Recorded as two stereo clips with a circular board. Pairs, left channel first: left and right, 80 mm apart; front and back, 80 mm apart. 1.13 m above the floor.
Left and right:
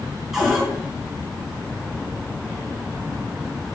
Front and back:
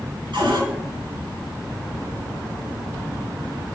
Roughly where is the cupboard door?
Behind.